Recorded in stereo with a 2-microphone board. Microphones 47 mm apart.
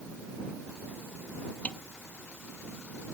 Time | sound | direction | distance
1.6 | a snare drum | 25° left (ahead or behind) | ?